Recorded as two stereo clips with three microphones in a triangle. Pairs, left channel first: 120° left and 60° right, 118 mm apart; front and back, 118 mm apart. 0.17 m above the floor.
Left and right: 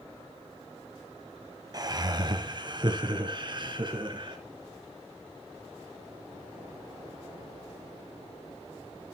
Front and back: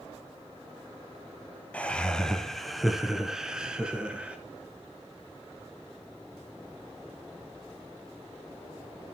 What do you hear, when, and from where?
1.7 s laughter: 70° right, 1.4 m; by 4.4 s 100° right, 2.5 m